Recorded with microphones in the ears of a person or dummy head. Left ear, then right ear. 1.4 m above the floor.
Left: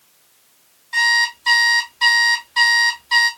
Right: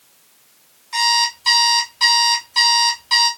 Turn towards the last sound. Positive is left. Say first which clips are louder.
# left 1 dB
turn(degrees=-20)  # may be behind; listen again after turning